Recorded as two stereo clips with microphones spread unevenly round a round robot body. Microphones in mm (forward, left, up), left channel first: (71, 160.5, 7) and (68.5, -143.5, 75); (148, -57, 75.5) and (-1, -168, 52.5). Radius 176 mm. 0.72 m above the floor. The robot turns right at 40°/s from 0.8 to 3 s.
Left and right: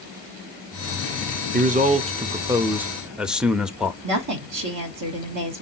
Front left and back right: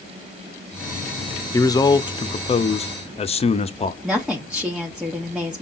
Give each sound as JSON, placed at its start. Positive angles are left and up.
{"t": 1.5, "sound": "a man speaking", "azimuth_deg": -35, "distance_m": 0.6}
{"t": 4.0, "sound": "a woman speaking", "azimuth_deg": -60, "distance_m": 1.2}